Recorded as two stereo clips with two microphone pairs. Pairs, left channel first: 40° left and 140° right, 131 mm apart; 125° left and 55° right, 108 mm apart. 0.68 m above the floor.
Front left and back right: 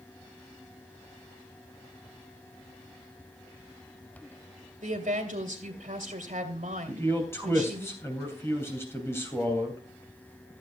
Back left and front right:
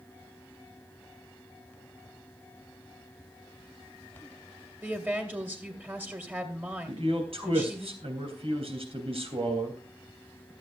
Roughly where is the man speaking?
Ahead right.